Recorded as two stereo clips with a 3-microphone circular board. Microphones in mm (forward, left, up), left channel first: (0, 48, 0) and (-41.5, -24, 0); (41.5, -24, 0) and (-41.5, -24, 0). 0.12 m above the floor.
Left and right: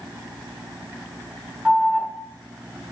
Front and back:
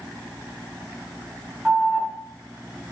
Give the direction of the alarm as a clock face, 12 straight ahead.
5 o'clock.